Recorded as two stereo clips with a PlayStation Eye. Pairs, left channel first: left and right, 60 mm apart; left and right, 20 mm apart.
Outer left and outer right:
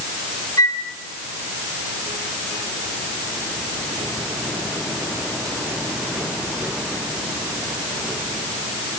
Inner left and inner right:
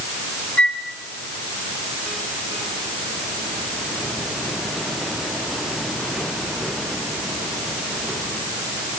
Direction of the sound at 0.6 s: 75° left (ahead or behind).